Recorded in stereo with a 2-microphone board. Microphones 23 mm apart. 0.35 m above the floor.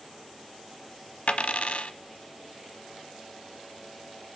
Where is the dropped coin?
65° left (ahead or behind), 0.9 m.